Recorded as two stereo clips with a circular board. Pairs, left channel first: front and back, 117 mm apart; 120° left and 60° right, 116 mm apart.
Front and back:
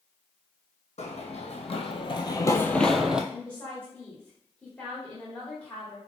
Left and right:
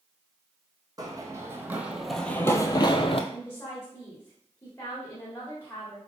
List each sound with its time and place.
1.0 s running footsteps: 5° right, 0.9 m; by 3.2 s 100° left, 0.6 m
3.3 s a woman speaking: 65° left, 1.2 m